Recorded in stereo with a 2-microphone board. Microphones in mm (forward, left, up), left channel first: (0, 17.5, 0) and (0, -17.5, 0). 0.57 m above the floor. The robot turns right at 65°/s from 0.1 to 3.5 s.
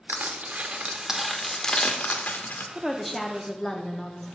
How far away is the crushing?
About 0.7 m.